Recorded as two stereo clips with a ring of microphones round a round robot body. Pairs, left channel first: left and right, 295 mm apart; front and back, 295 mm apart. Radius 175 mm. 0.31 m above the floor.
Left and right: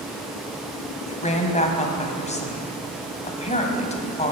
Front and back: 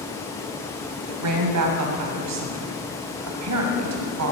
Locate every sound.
1.1 s a woman speaking: 155° left, 2.5 m